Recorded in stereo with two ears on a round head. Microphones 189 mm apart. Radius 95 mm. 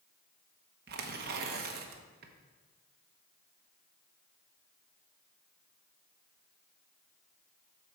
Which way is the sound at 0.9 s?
45° right (ahead or behind).